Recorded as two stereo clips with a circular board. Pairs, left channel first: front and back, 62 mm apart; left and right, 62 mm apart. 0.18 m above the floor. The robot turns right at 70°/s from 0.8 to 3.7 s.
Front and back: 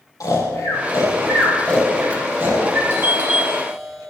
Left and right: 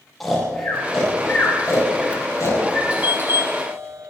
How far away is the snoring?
About 5.5 m.